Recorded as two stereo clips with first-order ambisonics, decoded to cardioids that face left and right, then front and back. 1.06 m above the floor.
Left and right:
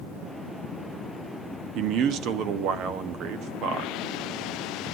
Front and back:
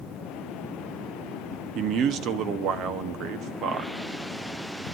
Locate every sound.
1.8 s a man speaking: 130° right, 1.1 m